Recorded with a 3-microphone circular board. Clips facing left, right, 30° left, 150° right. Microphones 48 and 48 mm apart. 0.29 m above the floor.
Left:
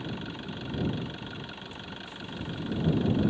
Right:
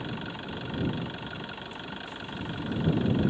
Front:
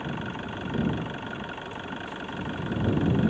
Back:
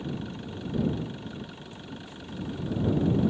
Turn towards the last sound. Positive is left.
turn(degrees=-15)